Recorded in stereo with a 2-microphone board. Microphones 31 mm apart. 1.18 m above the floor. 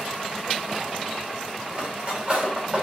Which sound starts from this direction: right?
Cutlery clinking, at 1.7 s.